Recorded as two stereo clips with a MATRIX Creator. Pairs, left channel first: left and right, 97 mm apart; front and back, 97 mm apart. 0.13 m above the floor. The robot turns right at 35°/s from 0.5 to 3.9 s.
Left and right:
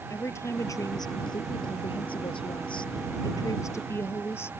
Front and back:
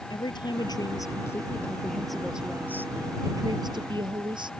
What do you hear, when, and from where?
0.1 s a woman speaking: 30° left; by 4.5 s 150° left